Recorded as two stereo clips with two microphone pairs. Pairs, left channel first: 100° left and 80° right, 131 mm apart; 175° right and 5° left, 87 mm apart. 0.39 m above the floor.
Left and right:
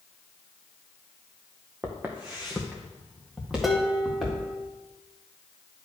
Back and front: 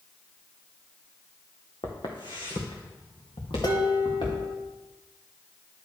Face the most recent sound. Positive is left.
turn(degrees=-170)